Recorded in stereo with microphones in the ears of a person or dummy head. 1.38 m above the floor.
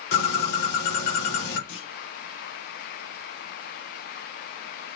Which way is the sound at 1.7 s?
70° left (ahead or behind).